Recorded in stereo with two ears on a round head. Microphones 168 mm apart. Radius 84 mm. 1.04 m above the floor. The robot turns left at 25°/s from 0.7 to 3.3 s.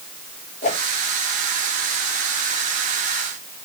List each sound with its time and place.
0.6 s a whoosh: 40° left (ahead or behind), 2.5 m; by 0.8 s 35° left (ahead or behind), 2.5 m